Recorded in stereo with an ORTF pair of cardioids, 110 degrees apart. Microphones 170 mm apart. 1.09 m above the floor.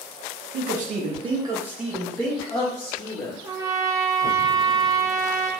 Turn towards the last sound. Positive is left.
turn(degrees=-20)